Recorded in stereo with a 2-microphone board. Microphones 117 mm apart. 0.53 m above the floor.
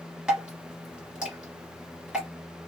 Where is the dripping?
10° right (ahead or behind), 1.8 m.